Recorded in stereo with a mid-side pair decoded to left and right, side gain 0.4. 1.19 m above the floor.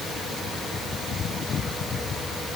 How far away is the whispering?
No whispering in this recording.